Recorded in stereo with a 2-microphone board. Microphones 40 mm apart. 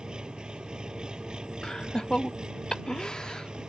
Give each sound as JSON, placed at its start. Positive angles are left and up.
{"t": 0.0, "sound": "an engine running", "side_deg": -20}
{"t": 1.6, "sound": "laughter", "side_deg": 15}